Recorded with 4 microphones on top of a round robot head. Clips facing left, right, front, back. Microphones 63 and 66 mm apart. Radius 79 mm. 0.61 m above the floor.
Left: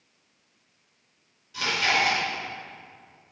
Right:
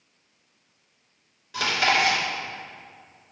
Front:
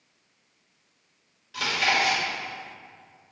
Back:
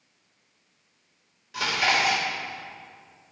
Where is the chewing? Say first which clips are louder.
Right 2 dB, back 1 dB; 110° right, 2.5 m.